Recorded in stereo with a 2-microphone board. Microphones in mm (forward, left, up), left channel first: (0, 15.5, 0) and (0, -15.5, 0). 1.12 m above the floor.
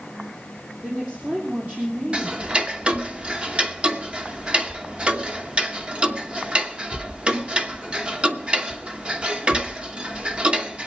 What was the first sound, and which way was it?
A woman speaking, 55° right (ahead or behind).